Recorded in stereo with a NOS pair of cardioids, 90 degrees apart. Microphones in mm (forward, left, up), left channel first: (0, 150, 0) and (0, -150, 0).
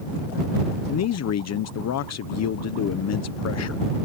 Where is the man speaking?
55° left.